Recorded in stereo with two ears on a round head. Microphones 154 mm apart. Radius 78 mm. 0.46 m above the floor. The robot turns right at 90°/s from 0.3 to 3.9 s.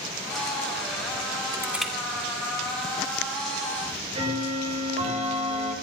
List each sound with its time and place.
1.5 s crushing: 25° right (ahead or behind), 4 m; by 1.9 s 10° left (ahead or behind), 4 m
3.8 s ticking: 50° right (ahead or behind), 9 m; by 5.7 s 35° right (ahead or behind), 9 m